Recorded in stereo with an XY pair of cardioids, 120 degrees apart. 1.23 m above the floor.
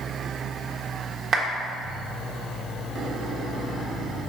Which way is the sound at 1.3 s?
50° right.